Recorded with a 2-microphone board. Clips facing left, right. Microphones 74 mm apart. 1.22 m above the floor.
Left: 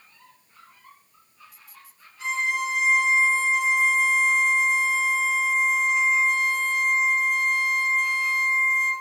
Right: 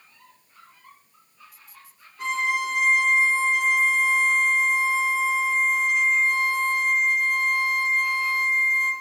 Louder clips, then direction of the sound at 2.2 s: Right 1 dB; 50° right (ahead or behind).